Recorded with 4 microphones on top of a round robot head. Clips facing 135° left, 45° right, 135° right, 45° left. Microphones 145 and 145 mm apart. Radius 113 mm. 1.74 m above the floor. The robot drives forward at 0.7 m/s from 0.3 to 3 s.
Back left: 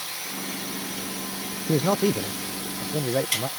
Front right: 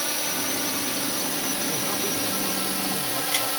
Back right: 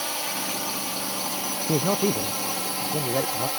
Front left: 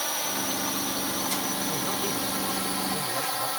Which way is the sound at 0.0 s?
50° right.